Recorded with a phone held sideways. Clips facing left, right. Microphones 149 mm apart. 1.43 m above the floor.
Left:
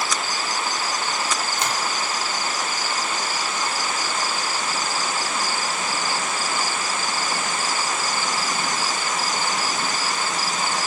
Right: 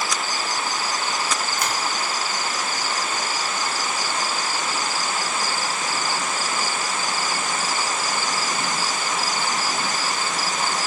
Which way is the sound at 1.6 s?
25° left (ahead or behind).